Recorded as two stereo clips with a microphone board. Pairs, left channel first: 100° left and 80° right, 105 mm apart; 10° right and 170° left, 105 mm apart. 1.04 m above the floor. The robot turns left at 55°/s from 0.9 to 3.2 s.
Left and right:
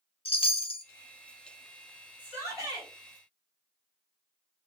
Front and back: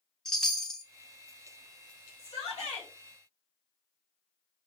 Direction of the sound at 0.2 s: 75° left.